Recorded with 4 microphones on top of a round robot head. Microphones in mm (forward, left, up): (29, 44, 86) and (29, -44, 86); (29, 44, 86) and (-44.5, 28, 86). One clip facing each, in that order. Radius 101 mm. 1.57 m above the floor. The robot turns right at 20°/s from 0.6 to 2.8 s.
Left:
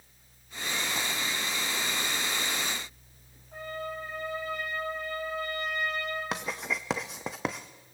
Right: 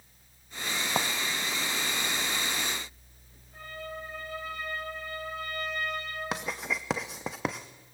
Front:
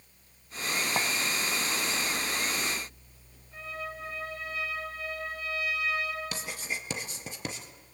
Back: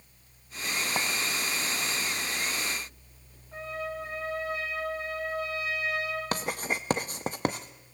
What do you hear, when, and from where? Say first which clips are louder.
1.0 s a clink: right 5 dB, front 1 dB; 75° right, 1.0 m; by 1.1 s 70° right, 1.0 m
3.5 s a trumpet: left 4 dB, back 4 dB; 140° left, 9.5 m
6.3 s writing: even, back 6 dB; straight behind, 0.5 m